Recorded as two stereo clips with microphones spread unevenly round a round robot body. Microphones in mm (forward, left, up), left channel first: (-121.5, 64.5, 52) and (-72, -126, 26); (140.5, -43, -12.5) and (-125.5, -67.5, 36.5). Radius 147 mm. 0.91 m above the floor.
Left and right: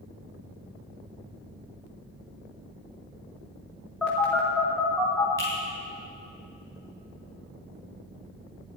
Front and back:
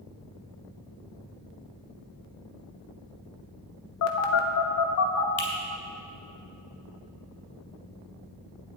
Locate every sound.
4.0 s a phone buzzing: 15° left, 1.1 m
5.4 s a finger snap: 25° left, 3 m